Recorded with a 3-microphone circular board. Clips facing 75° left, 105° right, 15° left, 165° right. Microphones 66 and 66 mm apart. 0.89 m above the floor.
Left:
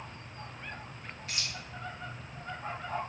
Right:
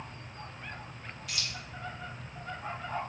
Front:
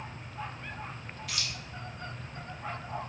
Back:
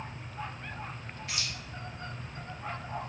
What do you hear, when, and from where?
1.3 s keys jangling: 130° left, 1.1 m